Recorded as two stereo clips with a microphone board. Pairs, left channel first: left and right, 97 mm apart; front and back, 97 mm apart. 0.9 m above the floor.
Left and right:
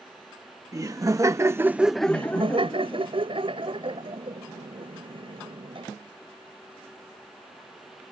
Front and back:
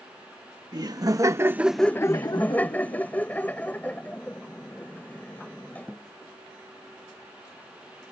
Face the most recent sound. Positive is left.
turn(degrees=-70)